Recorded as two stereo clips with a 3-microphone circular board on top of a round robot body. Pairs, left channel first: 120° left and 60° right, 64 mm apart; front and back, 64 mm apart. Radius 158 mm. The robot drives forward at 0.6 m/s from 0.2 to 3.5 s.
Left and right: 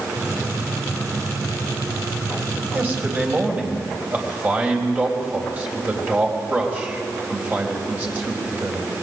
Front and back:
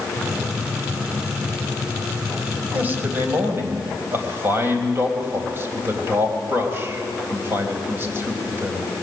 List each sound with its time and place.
2.7 s a man speaking: 120° right, 4 m; by 8.9 s 125° right, 4 m